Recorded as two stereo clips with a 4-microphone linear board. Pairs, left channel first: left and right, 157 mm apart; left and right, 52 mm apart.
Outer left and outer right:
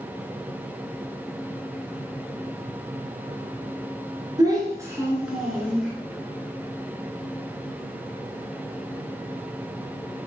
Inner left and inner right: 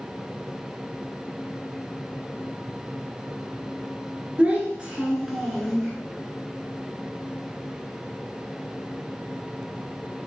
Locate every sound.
4.4 s a child speaking: 25° right (ahead or behind), 1.0 m; by 5.9 s 10° left (ahead or behind), 1.0 m